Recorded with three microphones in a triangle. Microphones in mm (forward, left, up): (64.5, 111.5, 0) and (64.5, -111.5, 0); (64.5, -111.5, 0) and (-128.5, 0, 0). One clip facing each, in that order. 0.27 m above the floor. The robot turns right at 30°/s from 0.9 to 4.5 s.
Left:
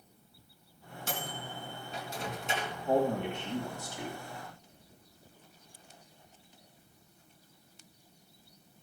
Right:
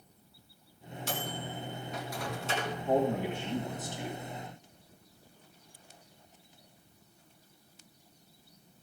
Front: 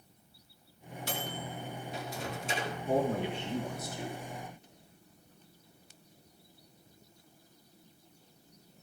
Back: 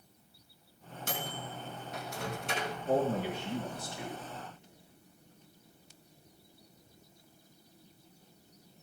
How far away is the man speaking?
About 2.0 m.